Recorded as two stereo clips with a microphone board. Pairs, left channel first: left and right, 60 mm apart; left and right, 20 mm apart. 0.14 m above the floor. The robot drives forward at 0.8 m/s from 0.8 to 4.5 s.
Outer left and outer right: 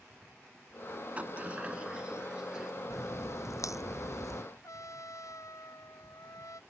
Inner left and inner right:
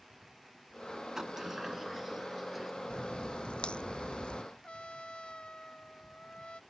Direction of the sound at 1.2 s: 25° right (ahead or behind).